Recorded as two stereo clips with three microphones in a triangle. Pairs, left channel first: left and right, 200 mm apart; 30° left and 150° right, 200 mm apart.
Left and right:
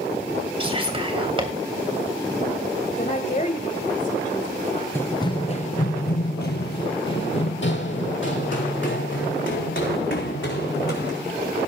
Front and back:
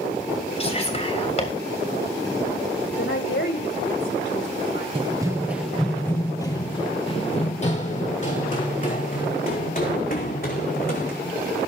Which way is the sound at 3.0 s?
40° left.